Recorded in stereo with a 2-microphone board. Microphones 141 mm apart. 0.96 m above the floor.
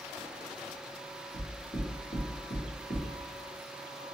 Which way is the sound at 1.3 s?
80° left.